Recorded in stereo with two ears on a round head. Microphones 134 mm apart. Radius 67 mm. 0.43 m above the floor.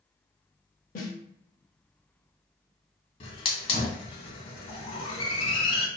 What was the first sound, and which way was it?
A snare drum, 55° left (ahead or behind).